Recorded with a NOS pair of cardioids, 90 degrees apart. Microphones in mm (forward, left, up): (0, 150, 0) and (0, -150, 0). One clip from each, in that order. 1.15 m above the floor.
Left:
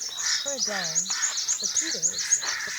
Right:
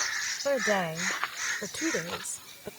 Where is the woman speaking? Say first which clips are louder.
Right 2 dB; 50° right.